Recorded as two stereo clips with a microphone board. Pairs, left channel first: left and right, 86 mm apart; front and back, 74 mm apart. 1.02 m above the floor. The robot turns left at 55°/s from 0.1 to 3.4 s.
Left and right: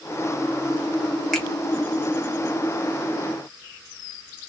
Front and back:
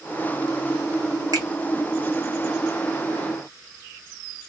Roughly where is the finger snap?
Behind.